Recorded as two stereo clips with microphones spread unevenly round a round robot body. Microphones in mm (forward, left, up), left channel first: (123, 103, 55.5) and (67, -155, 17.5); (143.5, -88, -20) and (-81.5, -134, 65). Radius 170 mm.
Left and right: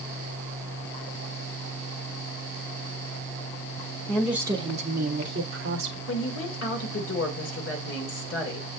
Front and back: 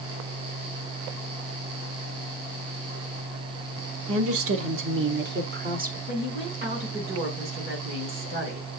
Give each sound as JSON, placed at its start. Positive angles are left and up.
{"t": 4.1, "sound": "a woman speaking", "azimuth_deg": 170, "distance_m": 1.2}
{"t": 6.1, "sound": "a woman speaking", "azimuth_deg": 125, "distance_m": 2.0}